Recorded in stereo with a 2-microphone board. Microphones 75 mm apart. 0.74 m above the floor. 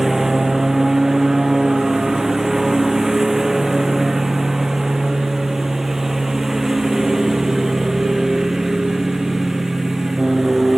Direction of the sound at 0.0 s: 5° right (ahead or behind).